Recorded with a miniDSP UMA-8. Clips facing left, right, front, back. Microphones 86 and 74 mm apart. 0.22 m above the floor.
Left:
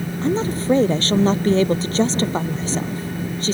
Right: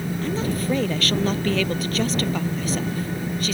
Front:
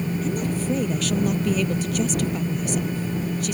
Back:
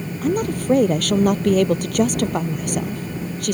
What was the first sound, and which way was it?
A woman speaking, 150° left.